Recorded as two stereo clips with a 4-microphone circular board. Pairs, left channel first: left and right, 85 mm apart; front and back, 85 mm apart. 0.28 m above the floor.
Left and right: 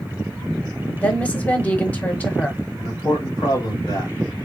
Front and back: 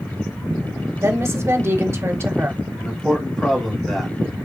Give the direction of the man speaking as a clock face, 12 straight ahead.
9 o'clock.